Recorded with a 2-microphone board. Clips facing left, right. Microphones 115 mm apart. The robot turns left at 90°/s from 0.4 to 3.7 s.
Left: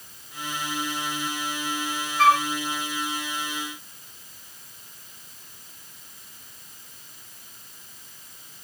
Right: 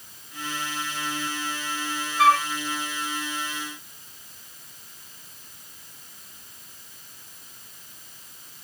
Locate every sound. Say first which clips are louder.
2.2 s a flute: even; 5° right (ahead or behind); by 2.5 s 10° left (ahead or behind)